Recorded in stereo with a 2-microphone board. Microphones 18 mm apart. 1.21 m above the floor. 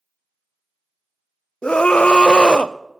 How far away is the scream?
About 0.6 m.